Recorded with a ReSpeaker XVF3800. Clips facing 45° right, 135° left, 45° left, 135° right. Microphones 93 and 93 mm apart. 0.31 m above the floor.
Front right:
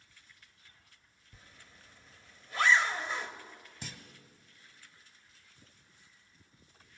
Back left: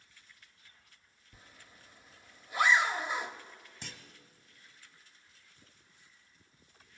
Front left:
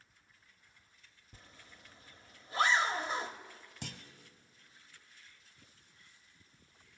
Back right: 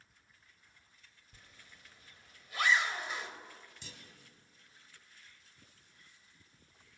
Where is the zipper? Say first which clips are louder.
Back left 1 dB, front left 3 dB; 65° left, 1.0 m.